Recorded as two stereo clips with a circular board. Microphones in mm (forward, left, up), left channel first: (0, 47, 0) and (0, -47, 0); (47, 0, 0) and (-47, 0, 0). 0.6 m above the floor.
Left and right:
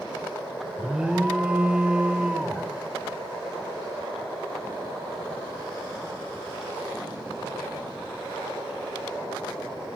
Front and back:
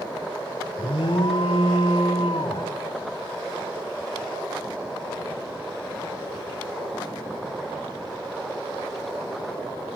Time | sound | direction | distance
0.8 | an alarm | 10° right | 1.5 m